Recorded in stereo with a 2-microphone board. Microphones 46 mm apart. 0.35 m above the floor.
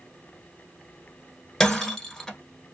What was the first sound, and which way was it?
Breaking glass, 5° left (ahead or behind).